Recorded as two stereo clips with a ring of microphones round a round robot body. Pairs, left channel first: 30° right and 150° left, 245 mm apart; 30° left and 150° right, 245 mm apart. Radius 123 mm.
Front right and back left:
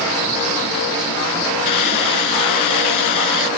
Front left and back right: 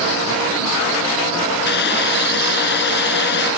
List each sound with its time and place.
1.6 s a hiss: 20° right